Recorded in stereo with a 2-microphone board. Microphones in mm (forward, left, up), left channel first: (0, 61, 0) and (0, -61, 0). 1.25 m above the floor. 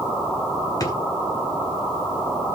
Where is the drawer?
35° left (ahead or behind), 2.0 m.